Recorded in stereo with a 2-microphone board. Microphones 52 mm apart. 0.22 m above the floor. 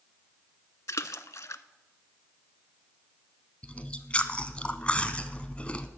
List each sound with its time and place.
0.9 s a splash: 75° left (ahead or behind), 0.6 m
3.6 s chewing: 20° left (ahead or behind), 0.8 m